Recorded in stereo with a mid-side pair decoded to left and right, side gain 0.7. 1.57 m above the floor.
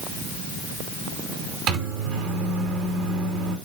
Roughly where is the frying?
I don't hear frying.